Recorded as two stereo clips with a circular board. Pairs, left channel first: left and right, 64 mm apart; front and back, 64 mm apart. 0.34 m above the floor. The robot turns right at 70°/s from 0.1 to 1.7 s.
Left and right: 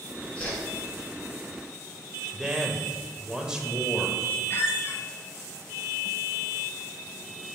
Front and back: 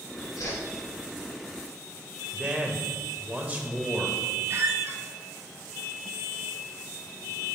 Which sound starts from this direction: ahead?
A whoosh, at 0.4 s.